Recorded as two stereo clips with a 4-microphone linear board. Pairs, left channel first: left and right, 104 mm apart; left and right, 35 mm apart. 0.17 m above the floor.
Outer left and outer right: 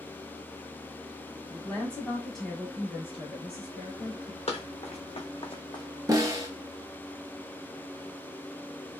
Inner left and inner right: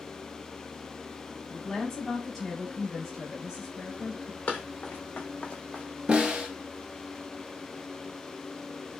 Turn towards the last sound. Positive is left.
turn(degrees=-35)  # may be behind; listen again after turning